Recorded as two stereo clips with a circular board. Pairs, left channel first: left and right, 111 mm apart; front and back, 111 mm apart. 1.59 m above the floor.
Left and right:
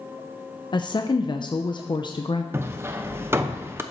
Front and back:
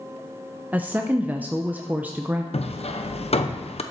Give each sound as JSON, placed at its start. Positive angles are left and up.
{"t": 0.7, "sound": "a woman speaking", "azimuth_deg": 110, "distance_m": 0.7}
{"t": 2.5, "sound": "hammering", "azimuth_deg": -20, "distance_m": 0.8}